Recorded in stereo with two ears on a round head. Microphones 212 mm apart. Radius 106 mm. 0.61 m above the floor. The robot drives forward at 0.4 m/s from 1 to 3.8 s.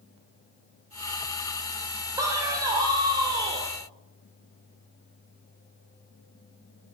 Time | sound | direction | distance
2.2 | a man speaking | 15° right (ahead or behind) | 2.5 m